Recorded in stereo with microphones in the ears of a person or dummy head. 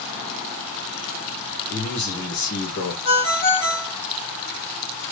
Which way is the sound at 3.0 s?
70° left (ahead or behind).